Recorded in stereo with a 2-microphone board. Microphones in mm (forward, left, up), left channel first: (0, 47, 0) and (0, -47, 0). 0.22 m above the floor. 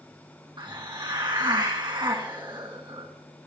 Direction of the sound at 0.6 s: 55° right (ahead or behind).